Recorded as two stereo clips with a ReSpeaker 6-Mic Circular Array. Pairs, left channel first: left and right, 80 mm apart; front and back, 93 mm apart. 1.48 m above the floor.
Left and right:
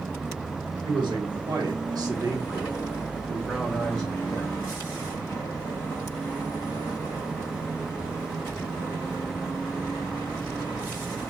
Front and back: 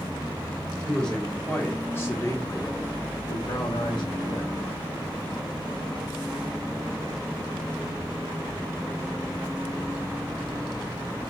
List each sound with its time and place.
0.8 s a man speaking: 85° right, 1.4 m; by 4.6 s 20° left, 1.3 m